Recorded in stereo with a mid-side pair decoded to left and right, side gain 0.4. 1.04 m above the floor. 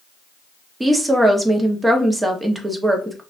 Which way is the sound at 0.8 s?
15° right.